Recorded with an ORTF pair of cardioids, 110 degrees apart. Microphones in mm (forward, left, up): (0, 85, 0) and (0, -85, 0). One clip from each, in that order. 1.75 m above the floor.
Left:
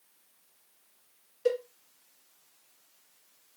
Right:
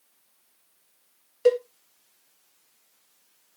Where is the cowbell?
60° right, 1.0 m.